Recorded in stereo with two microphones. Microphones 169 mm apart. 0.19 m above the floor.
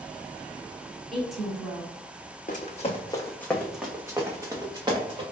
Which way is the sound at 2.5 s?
50° left (ahead or behind).